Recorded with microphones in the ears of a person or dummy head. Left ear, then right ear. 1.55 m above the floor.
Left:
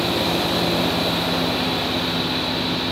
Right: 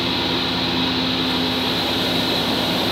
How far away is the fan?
About 2.5 m.